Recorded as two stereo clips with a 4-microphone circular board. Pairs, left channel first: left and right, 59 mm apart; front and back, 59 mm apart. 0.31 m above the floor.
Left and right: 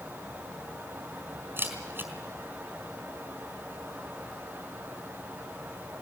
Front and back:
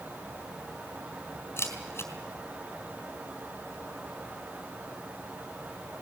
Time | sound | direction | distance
1.6 | a camera shutter | 40° right | 4 m